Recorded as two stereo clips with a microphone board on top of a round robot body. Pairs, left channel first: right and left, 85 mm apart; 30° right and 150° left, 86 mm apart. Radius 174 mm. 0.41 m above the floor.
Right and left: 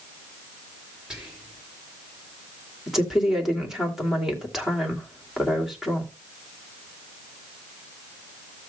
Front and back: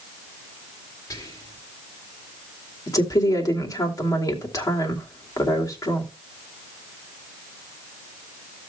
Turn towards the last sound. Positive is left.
turn(degrees=5)